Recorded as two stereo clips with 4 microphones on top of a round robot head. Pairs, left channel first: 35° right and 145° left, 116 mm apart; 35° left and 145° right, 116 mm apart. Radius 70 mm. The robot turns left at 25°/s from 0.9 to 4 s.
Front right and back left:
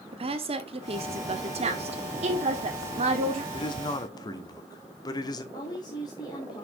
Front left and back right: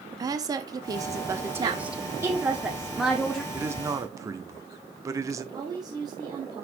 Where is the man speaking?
75° right, 1.2 m; by 5.4 s 85° right, 1.2 m.